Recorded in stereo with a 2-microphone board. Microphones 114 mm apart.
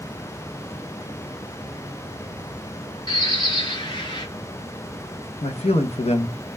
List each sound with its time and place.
3.1 s a bird: 45° left (ahead or behind), 0.7 m
5.4 s a man speaking: 65° left (ahead or behind), 0.5 m